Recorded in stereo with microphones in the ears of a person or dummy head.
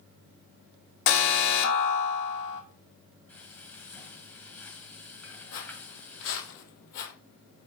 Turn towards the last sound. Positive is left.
turn(degrees=60)  # may be behind; listen again after turning